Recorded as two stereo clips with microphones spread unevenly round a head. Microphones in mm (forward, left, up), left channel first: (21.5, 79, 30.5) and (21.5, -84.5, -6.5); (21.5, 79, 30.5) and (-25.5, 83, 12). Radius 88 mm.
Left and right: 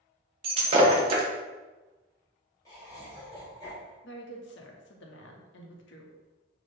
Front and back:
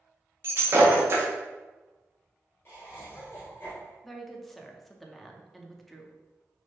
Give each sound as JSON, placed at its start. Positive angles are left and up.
{"t": 0.4, "sound": "breaking glass", "azimuth_deg": -135, "distance_m": 0.8}
{"t": 2.6, "sound": "laughter", "azimuth_deg": 25, "distance_m": 1.4}
{"t": 4.0, "sound": "a woman speaking", "azimuth_deg": 80, "distance_m": 0.9}